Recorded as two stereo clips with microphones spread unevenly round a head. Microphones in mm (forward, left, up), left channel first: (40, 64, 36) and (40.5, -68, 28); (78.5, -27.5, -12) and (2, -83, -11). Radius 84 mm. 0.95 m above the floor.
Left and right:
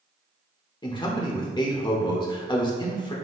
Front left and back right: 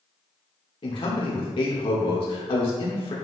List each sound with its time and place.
0.8 s a man speaking: 40° left, 1.3 m